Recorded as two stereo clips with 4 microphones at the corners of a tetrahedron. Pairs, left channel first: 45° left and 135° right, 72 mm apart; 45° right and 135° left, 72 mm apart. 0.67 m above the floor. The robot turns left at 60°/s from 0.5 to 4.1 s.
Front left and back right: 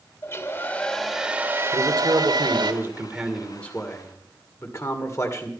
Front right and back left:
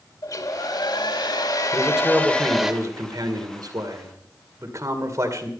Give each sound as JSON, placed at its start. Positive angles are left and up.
{"t": 0.2, "sound": "a hair dryer", "azimuth_deg": -15, "distance_m": 1.7}
{"t": 1.7, "sound": "a man speaking", "azimuth_deg": -125, "distance_m": 2.0}